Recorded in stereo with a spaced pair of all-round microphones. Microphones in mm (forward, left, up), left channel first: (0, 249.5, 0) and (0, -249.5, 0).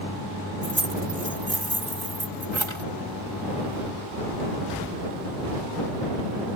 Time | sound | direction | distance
0.6 | keys jangling | 70° right (ahead or behind) | ?